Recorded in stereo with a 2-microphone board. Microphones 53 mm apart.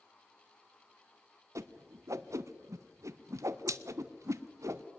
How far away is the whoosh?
About 0.7 m.